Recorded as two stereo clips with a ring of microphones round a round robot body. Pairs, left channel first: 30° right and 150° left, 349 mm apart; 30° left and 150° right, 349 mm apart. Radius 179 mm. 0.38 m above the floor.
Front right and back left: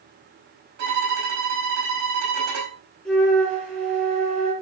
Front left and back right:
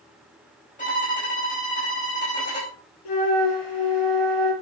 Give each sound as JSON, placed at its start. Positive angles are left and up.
{"t": 0.8, "sound": "a violin", "azimuth_deg": 100, "distance_m": 5.0}
{"t": 3.0, "sound": "a flute", "azimuth_deg": 60, "distance_m": 6.0}